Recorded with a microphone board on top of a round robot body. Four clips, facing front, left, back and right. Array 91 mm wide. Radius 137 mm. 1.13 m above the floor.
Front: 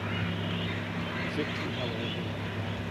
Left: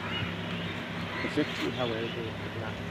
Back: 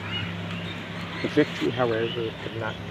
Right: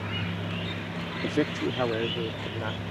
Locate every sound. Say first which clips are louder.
1.2 s a man speaking: right 4 dB, back 15 dB; 170° right; by 2.9 s 165° right